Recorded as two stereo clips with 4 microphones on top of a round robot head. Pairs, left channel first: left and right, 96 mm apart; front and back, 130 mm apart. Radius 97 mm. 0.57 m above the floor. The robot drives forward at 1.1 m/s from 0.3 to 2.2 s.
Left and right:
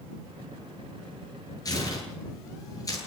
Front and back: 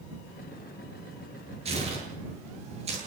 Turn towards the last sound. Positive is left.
turn(degrees=140)